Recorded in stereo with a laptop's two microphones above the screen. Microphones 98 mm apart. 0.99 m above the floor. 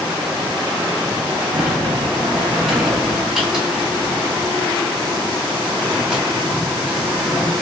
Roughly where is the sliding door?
Centre.